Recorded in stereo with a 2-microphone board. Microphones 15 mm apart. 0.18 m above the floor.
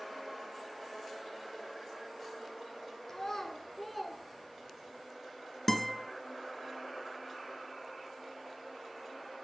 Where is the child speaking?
25° left (ahead or behind), 1.5 m; by 5.0 s 25° right (ahead or behind), 2 m.